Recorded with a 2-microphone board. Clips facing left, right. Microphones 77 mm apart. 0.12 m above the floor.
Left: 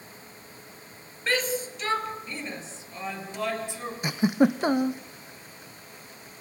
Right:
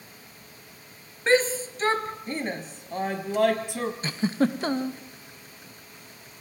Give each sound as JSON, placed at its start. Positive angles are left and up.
{"t": 1.3, "sound": "a shout", "side_deg": -30, "distance_m": 2.5}
{"t": 4.0, "sound": "a giggle", "side_deg": 15, "distance_m": 1.0}